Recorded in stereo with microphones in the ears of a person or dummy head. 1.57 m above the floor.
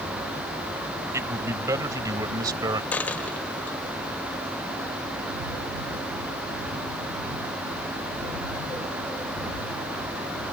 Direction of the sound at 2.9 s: 10° left (ahead or behind).